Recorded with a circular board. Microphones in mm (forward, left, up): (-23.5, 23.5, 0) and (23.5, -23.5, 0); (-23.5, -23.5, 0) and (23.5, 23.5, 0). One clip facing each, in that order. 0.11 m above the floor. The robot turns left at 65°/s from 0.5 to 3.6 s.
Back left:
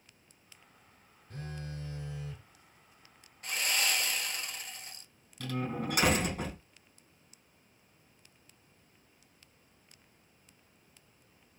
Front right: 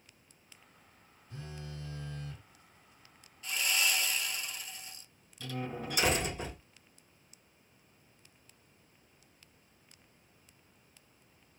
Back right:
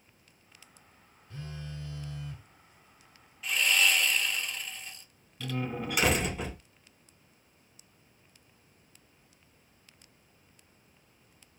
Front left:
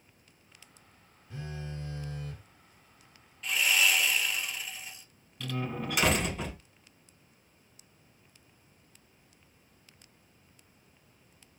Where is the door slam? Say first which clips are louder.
Back left 4 dB, back right 1 dB; 135° left, 2.5 m.